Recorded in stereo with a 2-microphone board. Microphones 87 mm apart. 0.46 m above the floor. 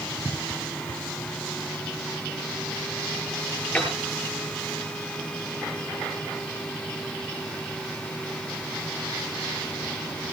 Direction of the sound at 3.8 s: 15° left (ahead or behind).